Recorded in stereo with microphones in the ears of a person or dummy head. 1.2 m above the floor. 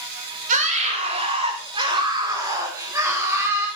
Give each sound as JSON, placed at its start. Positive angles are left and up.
{"t": 0.5, "sound": "a scream", "side_deg": -40, "distance_m": 5.5}